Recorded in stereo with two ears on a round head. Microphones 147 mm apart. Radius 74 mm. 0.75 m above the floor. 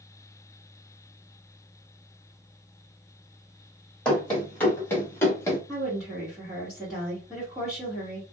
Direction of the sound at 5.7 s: 5° left (ahead or behind).